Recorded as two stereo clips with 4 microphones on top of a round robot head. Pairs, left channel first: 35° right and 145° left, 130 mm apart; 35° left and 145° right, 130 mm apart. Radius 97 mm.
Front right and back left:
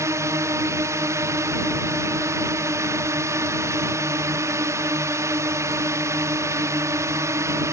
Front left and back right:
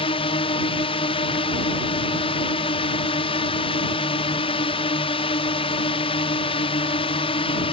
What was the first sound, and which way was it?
A drone, 80° left.